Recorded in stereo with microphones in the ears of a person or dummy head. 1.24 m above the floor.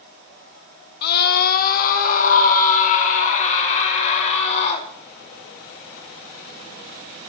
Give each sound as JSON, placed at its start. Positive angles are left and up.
{"t": 1.0, "sound": "a scream", "side_deg": 60, "distance_m": 1.8}